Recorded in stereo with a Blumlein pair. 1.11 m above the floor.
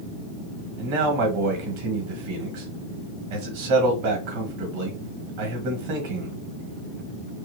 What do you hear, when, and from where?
0.8 s a man speaking: 45° right, 1.4 m